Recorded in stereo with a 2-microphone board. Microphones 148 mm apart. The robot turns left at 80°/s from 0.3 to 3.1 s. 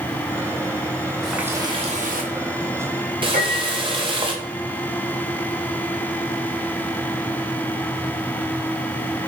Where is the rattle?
I don't hear a rattle.